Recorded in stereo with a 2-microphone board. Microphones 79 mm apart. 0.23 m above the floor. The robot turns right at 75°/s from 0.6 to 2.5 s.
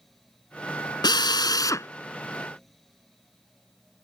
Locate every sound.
1.0 s a drill: 80° left; by 1.9 s 140° left